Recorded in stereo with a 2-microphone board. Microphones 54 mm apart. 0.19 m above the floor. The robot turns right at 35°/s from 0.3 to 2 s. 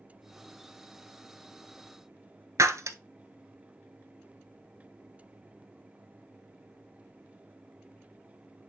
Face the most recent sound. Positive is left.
turn(degrees=-70)  # may be behind; listen again after turning